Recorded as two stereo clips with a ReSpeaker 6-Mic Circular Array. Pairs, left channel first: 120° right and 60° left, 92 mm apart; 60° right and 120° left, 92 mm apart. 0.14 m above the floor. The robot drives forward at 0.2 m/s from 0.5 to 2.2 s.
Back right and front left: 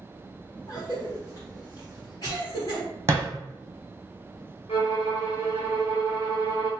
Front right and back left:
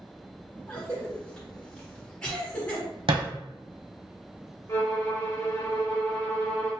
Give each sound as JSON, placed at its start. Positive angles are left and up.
{"t": 0.7, "sound": "a cough", "azimuth_deg": -115, "distance_m": 1.6}
{"t": 3.1, "sound": "a thud", "azimuth_deg": 120, "distance_m": 1.2}
{"t": 4.7, "sound": "a violin", "azimuth_deg": -120, "distance_m": 1.6}